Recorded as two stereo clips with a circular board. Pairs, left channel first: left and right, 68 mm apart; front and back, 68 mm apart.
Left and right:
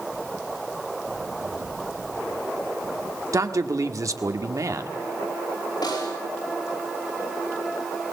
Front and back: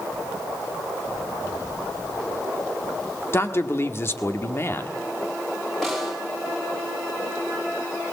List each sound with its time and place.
3.3 s a man speaking: 50° right, 1.5 m
5.8 s a snare drum: 90° left, 8.5 m